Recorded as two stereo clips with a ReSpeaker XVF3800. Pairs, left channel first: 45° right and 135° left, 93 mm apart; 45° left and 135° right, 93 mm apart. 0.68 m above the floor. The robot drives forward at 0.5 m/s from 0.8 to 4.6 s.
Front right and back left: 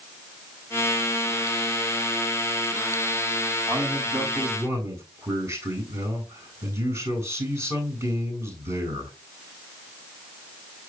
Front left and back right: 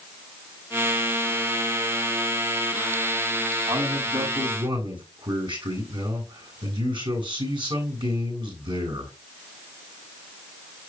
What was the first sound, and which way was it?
A man speaking, 165° right.